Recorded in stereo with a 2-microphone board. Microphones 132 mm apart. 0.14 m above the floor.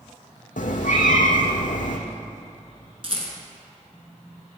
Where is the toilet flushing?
I don't hear a toilet flushing.